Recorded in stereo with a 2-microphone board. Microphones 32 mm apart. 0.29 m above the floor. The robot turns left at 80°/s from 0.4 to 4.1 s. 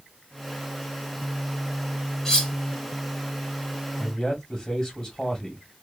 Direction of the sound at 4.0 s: 20° left (ahead or behind).